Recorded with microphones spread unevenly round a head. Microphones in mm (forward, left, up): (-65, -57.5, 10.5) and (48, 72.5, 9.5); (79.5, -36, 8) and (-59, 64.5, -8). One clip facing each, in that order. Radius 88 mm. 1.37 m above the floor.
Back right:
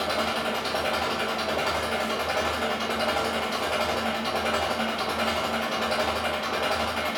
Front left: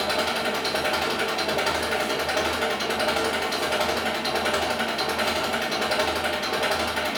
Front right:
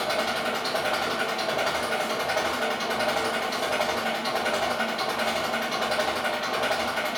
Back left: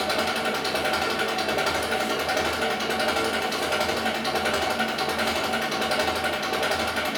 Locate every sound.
0.0 s an engine running: 105° left, 0.9 m